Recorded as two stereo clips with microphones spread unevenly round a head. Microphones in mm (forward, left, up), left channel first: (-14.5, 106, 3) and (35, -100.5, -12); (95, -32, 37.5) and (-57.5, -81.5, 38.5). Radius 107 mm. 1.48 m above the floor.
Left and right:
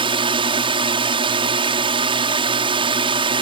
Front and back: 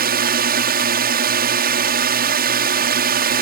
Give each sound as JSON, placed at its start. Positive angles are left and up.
{"t": 0.0, "sound": "a drone", "azimuth_deg": -145}